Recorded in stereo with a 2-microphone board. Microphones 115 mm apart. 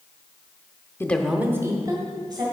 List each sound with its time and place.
1.0 s a woman speaking: 20° left (ahead or behind), 0.8 m; by 2.4 s 40° right (ahead or behind), 2.5 m